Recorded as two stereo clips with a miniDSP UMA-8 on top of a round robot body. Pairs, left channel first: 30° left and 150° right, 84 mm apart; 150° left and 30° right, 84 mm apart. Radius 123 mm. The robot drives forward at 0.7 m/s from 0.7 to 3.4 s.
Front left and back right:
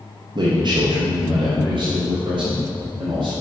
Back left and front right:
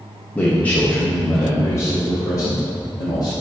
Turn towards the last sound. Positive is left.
turn(degrees=-165)